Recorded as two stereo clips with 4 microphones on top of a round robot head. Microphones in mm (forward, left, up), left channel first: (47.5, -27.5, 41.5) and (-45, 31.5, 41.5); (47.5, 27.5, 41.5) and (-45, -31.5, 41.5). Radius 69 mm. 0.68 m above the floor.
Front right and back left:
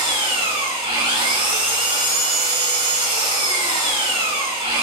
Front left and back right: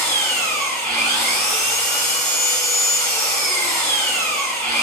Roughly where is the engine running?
Behind left.